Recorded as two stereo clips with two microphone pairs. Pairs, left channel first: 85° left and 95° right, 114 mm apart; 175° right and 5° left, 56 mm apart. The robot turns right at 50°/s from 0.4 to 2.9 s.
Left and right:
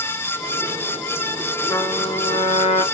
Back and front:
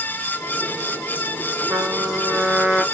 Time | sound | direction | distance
1.7 | a trumpet | 25° left | 0.8 m